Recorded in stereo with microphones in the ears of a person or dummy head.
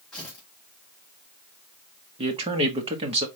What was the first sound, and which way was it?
Tearing paper, 5° left (ahead or behind).